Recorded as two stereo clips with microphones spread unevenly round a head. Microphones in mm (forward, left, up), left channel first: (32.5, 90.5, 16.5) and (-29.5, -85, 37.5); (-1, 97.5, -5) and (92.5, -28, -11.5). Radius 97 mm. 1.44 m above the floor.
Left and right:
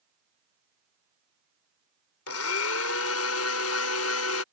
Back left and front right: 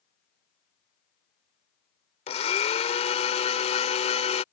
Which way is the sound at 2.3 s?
80° left.